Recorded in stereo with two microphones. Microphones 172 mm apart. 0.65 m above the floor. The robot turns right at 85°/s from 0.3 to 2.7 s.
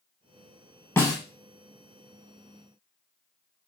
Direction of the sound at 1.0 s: 15° left (ahead or behind).